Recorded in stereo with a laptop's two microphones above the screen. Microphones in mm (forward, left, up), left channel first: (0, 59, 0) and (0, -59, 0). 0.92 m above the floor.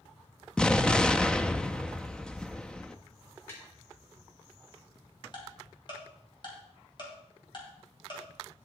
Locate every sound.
0.6 s an explosion: 5° left (ahead or behind), 0.5 m
3.5 s tapping: 20° left (ahead or behind), 2 m
5.3 s ticking: 40° left (ahead or behind), 2.5 m